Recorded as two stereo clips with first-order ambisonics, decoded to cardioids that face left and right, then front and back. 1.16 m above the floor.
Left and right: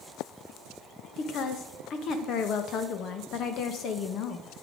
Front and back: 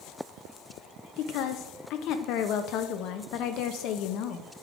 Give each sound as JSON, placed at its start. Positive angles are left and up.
{"t": 1.2, "sound": "a woman speaking", "azimuth_deg": 40, "distance_m": 1.0}